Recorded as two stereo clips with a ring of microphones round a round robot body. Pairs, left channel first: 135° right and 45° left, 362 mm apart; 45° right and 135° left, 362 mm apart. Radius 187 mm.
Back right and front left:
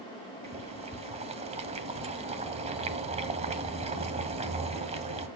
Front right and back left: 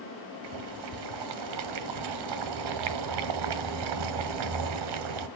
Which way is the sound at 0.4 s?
120° left.